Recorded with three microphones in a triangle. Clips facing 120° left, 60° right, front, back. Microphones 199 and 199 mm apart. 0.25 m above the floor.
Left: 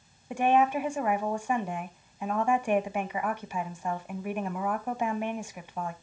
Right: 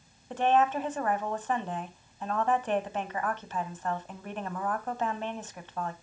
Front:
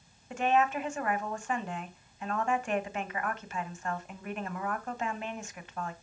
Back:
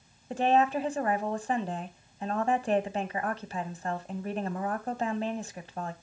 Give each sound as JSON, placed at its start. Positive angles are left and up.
{"t": 0.3, "sound": "a woman speaking", "azimuth_deg": -170, "distance_m": 1.1}